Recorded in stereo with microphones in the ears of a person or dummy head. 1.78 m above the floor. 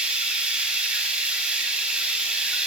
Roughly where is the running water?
Centre.